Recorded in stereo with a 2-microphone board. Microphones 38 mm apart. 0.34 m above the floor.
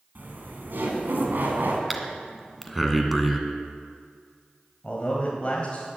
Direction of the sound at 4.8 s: 30° left (ahead or behind).